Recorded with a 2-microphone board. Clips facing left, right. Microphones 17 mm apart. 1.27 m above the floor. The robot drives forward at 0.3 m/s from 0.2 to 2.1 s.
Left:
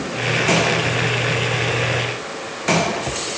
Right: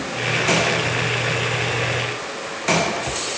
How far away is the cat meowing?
I don't hear a cat meowing.